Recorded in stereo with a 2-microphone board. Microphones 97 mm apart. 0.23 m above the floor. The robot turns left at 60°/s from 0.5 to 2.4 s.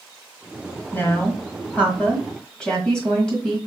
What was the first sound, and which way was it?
A woman speaking, 20° left (ahead or behind).